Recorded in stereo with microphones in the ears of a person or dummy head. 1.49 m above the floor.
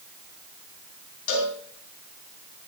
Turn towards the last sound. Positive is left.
turn(degrees=80)